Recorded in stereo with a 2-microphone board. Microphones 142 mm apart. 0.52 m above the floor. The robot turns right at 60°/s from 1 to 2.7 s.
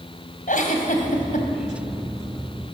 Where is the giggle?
70° left (ahead or behind), 2.5 m.